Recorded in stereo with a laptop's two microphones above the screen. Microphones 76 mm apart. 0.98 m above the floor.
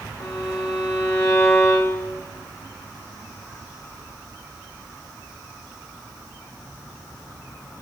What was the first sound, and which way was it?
A violin, 45° left (ahead or behind).